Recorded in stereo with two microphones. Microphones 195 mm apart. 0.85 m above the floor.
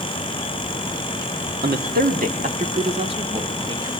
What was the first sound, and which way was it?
A man speaking, 55° right (ahead or behind).